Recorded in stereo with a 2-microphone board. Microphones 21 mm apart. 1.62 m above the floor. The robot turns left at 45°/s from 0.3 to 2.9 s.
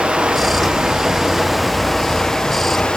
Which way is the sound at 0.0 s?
115° right.